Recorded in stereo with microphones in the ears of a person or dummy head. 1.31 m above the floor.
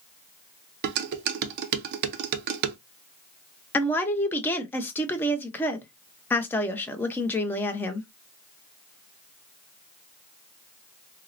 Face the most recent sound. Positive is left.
turn(degrees=10)  # may be behind; listen again after turning